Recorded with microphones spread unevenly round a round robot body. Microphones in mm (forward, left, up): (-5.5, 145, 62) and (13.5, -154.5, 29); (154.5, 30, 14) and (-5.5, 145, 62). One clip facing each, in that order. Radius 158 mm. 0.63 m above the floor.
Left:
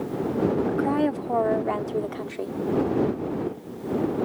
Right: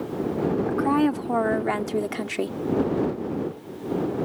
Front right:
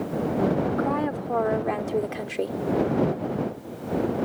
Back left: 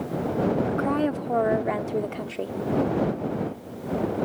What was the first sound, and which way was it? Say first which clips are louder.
A woman speaking: right 2 dB, back left 1 dB; 155° right.